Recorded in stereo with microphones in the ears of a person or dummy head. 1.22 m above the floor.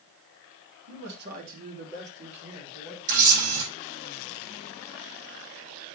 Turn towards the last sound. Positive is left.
turn(degrees=-50)  # may be behind; listen again after turning